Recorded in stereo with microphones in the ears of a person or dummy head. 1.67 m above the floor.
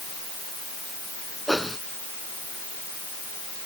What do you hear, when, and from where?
1.5 s a whoosh: centre (ahead or behind)